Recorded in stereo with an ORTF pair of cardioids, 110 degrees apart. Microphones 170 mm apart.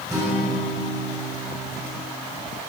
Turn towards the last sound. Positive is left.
turn(degrees=-15)